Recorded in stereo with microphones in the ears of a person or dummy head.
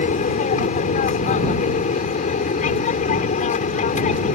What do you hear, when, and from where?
0.0 s an aircraft: 30° left (ahead or behind)